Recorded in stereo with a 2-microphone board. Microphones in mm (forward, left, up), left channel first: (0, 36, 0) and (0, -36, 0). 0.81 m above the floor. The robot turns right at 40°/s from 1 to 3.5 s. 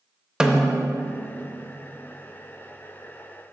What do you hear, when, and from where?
0.4 s a snare drum: 10° right (ahead or behind), 0.5 m